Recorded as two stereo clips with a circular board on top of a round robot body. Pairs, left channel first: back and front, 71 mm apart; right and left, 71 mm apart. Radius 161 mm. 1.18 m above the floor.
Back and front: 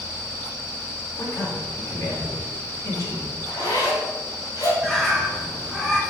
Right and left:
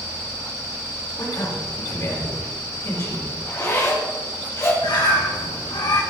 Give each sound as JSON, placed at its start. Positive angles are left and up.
{"t": 1.2, "sound": "a man speaking", "azimuth_deg": -135, "distance_m": 5.5}
{"t": 3.5, "sound": "a zipper", "azimuth_deg": -150, "distance_m": 5.0}
{"t": 4.8, "sound": "a bird", "azimuth_deg": -100, "distance_m": 2.5}